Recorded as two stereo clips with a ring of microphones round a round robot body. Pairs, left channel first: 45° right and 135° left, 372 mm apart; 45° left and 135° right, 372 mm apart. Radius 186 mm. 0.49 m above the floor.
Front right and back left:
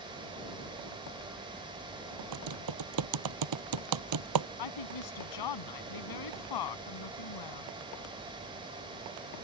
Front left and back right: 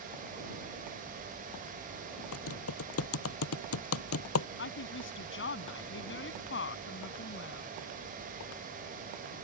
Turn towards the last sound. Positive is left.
turn(degrees=-15)